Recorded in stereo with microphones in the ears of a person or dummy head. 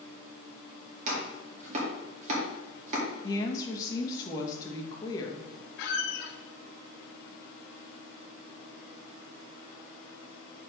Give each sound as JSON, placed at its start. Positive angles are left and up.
{"t": 1.1, "sound": "chopping", "side_deg": -35, "distance_m": 2.5}
{"t": 3.2, "sound": "a woman speaking", "side_deg": 25, "distance_m": 1.5}
{"t": 5.8, "sound": "a squeak", "side_deg": 65, "distance_m": 1.1}